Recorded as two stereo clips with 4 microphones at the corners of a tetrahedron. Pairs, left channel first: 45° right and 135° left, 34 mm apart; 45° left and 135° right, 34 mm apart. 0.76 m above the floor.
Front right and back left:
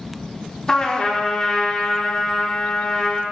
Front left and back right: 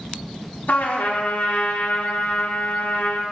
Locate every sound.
0.7 s a trumpet: 25° left, 1.2 m